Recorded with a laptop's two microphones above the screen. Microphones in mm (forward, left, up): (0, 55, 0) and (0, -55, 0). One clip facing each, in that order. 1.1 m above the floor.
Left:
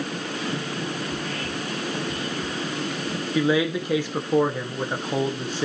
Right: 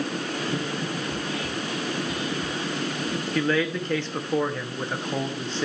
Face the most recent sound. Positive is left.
turn(degrees=10)  # may be behind; listen again after turning